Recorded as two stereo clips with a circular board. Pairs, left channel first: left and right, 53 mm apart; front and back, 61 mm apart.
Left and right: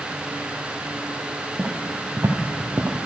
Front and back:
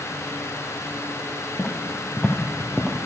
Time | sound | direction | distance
1.6 | footsteps | 40° right | 2 m